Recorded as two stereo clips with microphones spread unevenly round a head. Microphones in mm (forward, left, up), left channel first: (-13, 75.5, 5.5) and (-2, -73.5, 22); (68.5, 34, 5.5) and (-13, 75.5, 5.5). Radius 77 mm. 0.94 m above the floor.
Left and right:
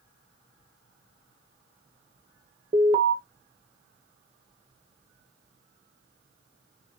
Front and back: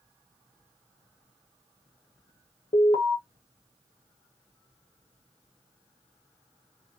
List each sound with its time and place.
2.7 s an alarm: 35° right, 0.9 m